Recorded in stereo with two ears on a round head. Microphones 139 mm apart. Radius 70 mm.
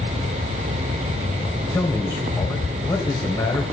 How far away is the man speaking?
About 1.9 m.